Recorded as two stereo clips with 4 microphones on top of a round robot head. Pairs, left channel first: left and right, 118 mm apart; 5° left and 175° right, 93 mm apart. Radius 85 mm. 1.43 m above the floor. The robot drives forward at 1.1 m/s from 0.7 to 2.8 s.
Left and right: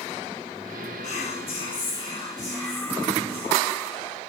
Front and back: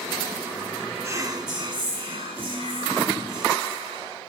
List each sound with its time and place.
1.0 s whispering: 120° left, 0.9 m; by 4.2 s 160° left, 2.5 m